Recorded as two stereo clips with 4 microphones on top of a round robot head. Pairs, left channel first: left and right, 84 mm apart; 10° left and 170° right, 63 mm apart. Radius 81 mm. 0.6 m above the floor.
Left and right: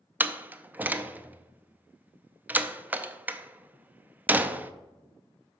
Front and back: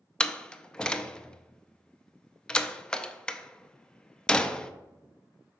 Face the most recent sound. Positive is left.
turn(degrees=-50)